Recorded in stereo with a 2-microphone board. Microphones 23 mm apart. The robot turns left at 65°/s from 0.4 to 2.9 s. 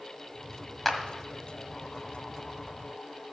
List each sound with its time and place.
0.8 s a clap: 10° left (ahead or behind), 1.3 m; by 1.0 s 15° left (ahead or behind), 1.3 m